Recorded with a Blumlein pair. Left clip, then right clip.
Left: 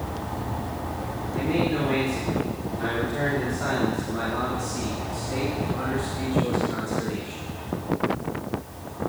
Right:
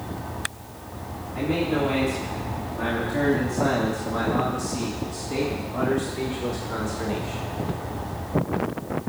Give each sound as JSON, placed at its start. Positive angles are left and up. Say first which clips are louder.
{"t": 1.4, "sound": "a man speaking", "louder": "right 1 dB", "azimuth_deg": -15, "distance_m": 5.0}